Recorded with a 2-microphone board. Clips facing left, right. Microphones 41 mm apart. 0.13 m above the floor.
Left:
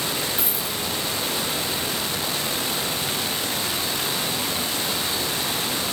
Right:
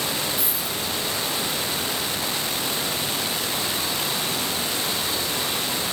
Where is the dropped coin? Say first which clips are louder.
Even; 25° left (ahead or behind), 2.5 m.